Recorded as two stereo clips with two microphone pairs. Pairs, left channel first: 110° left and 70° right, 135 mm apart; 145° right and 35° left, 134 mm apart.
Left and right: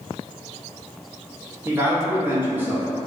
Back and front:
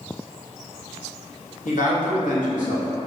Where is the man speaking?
150° right, 1.1 m.